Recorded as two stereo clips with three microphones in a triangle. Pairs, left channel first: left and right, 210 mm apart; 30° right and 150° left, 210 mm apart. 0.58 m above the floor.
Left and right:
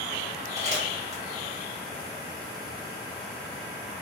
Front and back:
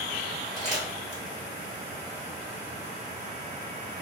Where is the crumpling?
125° right, 1.5 m.